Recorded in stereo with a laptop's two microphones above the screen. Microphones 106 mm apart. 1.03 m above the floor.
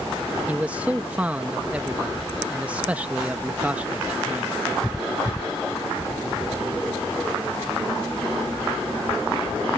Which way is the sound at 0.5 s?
15° right (ahead or behind).